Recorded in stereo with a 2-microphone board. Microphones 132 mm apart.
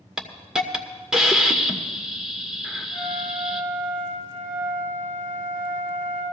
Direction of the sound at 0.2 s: 5° right (ahead or behind).